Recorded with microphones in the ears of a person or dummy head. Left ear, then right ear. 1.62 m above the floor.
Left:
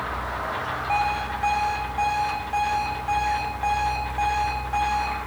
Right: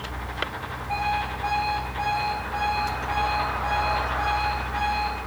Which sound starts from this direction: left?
An alarm clock, at 0.9 s.